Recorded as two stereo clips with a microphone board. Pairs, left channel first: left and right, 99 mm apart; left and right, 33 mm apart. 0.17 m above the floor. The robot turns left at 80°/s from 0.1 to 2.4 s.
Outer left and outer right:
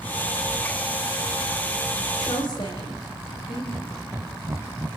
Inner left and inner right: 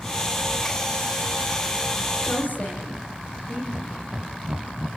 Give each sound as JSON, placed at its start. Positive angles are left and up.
{"t": 2.2, "sound": "a woman speaking", "side_deg": 30, "distance_m": 9.5}
{"t": 3.7, "sound": "laughter", "side_deg": -25, "distance_m": 1.3}